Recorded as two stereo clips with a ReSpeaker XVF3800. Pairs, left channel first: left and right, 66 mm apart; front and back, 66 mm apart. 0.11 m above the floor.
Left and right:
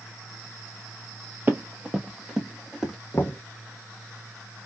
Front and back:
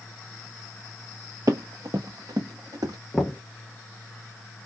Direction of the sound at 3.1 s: 85° left.